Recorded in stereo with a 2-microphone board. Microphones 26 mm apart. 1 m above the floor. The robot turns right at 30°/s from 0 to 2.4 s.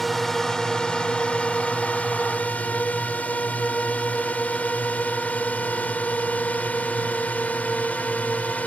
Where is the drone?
10° left (ahead or behind); by 8.7 s 65° left (ahead or behind).